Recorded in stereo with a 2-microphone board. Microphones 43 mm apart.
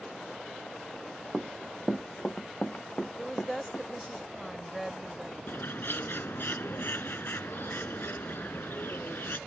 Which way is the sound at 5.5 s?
60° left (ahead or behind).